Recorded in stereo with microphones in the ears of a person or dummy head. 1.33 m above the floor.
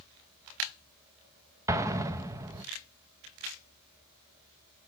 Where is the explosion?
15° right (ahead or behind), 0.8 m.